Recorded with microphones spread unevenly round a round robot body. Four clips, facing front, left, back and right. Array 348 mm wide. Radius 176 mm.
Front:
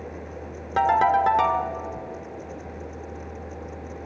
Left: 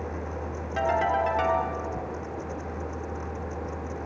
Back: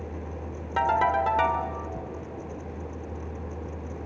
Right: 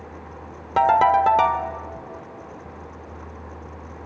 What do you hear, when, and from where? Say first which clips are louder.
0.8 s a ringtone: right 9 dB, front 4 dB; 55° right, 1.6 m